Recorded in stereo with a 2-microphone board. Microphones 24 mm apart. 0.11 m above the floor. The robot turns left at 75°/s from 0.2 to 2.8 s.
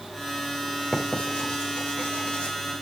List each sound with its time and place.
0.9 s writing: 30° left (ahead or behind), 5.5 m